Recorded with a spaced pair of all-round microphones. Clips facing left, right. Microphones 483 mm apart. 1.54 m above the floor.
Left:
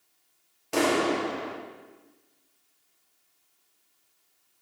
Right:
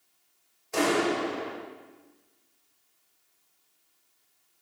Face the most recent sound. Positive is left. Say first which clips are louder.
# left 1 dB
turn(degrees=85)